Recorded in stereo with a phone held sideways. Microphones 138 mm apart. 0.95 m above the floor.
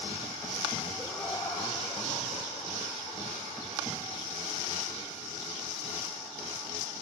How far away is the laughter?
About 3.5 m.